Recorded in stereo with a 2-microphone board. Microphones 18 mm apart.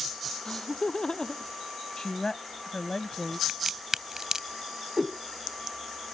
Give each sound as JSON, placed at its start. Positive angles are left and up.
{"t": 0.5, "sound": "laughter", "side_deg": 50}
{"t": 2.0, "sound": "a woman speaking", "side_deg": 40}
{"t": 3.5, "sound": "a crack", "side_deg": -30}
{"t": 5.0, "sound": "a whoosh", "side_deg": -20}